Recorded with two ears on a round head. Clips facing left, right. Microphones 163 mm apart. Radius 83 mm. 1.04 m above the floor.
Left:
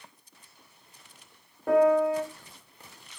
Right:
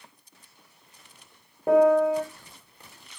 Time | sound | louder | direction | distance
1.7 | a piano | right 3 dB | 20° right (ahead or behind) | 0.8 m